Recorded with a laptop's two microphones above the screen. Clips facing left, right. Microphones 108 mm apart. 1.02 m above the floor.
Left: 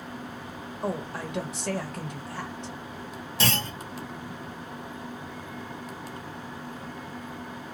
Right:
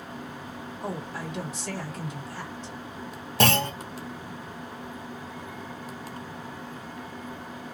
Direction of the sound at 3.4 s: 55° right (ahead or behind).